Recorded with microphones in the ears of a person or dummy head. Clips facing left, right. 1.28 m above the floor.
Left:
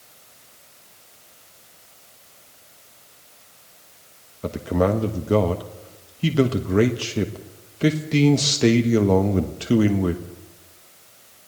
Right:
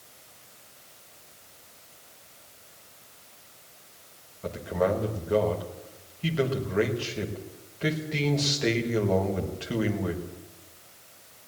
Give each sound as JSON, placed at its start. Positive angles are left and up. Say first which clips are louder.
{"t": 4.4, "sound": "a man speaking", "louder": "left 5 dB", "side_deg": 65, "distance_m": 1.4}